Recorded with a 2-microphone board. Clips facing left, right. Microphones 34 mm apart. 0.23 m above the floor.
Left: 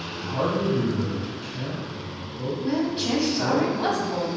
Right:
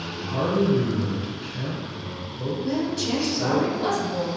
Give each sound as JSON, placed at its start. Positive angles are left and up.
{"t": 0.2, "sound": "a man speaking", "side_deg": -15, "distance_m": 1.5}
{"t": 2.6, "sound": "a woman speaking", "side_deg": 30, "distance_m": 1.1}